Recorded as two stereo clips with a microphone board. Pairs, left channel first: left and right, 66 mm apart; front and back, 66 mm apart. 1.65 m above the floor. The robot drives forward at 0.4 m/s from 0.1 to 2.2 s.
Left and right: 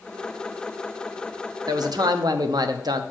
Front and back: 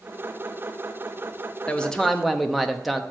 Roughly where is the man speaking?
Right.